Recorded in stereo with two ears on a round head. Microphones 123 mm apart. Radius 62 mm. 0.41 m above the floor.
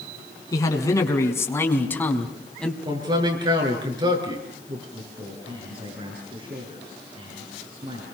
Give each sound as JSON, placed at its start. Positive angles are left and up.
{"t": 0.5, "sound": "a man speaking", "side_deg": 25, "distance_m": 5.0}
{"t": 2.9, "sound": "a man speaking", "side_deg": -35, "distance_m": 6.5}
{"t": 4.9, "sound": "a man speaking", "side_deg": -40, "distance_m": 7.0}